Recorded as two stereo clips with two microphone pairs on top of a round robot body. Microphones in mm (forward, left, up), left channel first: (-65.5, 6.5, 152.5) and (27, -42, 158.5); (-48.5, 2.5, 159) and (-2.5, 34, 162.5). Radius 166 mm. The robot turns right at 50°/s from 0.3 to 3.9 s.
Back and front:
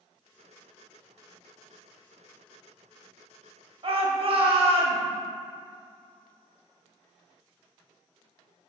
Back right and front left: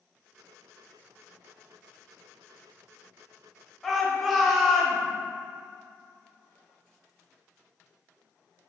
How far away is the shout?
About 2.5 m.